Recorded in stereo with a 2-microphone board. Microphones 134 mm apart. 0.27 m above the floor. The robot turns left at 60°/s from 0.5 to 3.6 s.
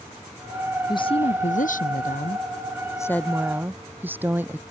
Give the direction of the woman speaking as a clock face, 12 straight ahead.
7 o'clock.